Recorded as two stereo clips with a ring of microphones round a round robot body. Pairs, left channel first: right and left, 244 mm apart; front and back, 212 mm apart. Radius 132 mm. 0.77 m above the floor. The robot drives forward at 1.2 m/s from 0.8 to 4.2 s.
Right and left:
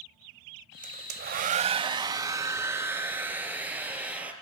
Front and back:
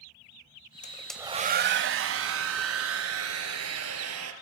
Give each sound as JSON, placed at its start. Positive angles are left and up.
{"t": 0.8, "sound": "a hair dryer", "azimuth_deg": 40, "distance_m": 0.7}